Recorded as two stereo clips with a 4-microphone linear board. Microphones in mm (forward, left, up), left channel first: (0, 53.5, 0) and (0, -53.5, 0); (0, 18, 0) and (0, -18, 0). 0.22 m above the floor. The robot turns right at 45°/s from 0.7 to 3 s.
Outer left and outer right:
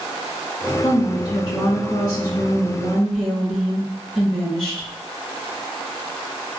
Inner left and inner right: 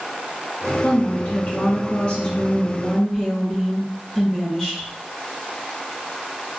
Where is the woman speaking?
95° left, 2.5 m; by 4.9 s 170° right, 2.5 m.